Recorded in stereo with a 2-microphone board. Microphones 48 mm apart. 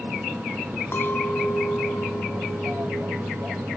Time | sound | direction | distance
0.9 | a clink | 55° left (ahead or behind) | 2.5 m